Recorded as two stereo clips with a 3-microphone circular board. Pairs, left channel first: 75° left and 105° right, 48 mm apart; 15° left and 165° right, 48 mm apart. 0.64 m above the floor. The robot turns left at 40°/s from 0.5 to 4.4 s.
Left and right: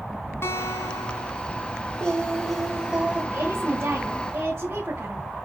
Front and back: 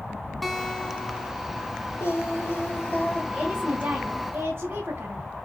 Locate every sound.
0.4 s a guitar: 105° left, 2.5 m; by 1.8 s 55° left, 2.5 m
2.0 s singing: 5° left, 3.5 m; by 3.2 s 45° right, 3.5 m
3.3 s a woman speaking: 85° right, 3.5 m; by 5.2 s 130° right, 3.5 m